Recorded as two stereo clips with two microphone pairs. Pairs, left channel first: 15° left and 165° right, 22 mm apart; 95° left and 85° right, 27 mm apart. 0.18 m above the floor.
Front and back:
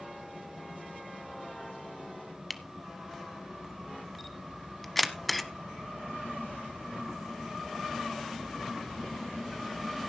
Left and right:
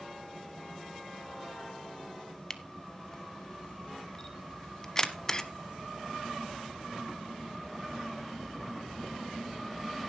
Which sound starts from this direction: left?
A camera shutter, at 2.5 s.